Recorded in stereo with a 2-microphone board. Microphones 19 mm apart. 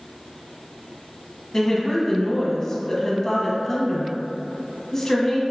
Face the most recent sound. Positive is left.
turn(degrees=25)  # may be behind; listen again after turning